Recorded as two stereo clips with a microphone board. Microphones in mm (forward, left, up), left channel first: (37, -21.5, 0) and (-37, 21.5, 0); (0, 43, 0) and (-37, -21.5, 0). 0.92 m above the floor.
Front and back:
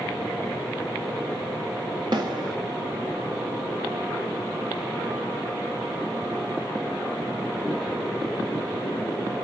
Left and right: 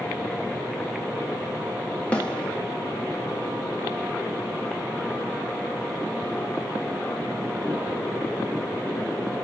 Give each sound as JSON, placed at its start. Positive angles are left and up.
{"t": 2.1, "sound": "a snare drum", "azimuth_deg": 135, "distance_m": 2.0}